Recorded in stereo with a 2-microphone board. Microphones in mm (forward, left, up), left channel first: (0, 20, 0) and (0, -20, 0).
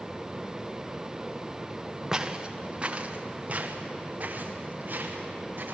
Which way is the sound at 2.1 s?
15° right (ahead or behind).